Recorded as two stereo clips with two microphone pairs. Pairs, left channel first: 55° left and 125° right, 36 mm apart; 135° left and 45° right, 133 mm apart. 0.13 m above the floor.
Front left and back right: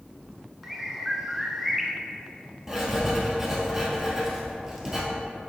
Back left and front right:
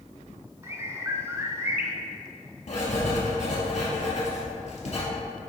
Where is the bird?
45° right, 0.7 m.